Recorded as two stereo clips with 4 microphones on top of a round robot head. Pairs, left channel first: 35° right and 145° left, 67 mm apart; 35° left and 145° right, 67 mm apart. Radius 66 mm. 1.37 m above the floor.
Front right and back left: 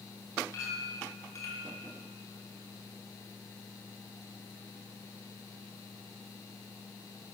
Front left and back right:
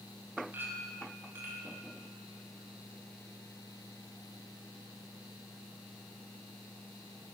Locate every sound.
0.5 s a clink: 80° right, 4 m